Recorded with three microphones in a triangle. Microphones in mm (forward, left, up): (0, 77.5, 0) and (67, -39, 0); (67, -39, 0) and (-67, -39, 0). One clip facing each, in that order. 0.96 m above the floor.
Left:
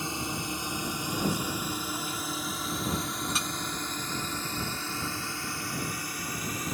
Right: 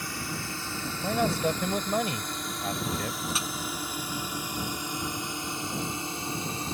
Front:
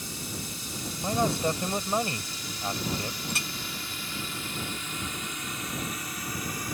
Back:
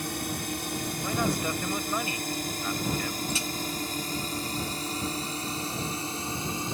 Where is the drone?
175° right; by 6.8 s 120° right.